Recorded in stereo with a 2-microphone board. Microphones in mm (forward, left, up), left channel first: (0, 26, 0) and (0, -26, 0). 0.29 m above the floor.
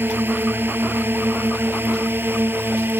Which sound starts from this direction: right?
A drone, at 0.0 s.